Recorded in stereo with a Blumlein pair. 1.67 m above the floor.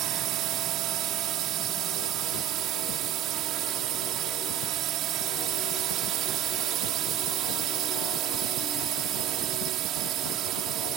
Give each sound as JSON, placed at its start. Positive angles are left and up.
{"t": 0.0, "sound": "a drone", "azimuth_deg": -35}